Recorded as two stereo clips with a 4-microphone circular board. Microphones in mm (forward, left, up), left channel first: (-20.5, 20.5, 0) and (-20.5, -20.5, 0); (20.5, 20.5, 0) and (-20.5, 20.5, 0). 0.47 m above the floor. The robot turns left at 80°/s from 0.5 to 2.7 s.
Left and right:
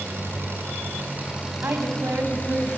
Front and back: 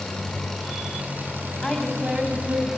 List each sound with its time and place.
0.0 s an engine running: 85° right, 5.5 m; by 2.8 s 100° left, 5.5 m
1.6 s a woman speaking: 75° right, 3.5 m; by 2.7 s 160° right, 3.5 m